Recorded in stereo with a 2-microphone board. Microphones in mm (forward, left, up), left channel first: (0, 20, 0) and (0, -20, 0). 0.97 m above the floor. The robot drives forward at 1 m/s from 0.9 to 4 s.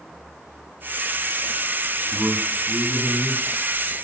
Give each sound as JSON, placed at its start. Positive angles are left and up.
{"t": 2.0, "sound": "a man speaking", "side_deg": -85, "distance_m": 7.5}